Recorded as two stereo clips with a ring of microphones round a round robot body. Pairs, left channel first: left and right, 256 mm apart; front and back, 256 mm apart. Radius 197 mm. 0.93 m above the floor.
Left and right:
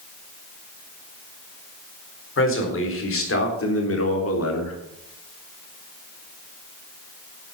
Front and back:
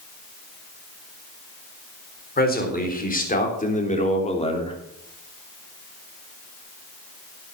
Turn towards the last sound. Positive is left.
turn(degrees=70)